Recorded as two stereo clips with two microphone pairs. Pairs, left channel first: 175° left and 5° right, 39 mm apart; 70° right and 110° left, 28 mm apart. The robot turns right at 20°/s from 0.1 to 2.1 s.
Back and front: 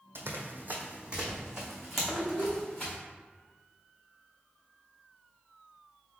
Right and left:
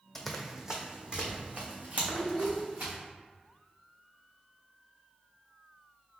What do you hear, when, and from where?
0.1 s running footsteps: 10° left, 0.7 m; by 3.0 s 100° left, 1.9 m
2.1 s a child speaking: 120° right, 0.9 m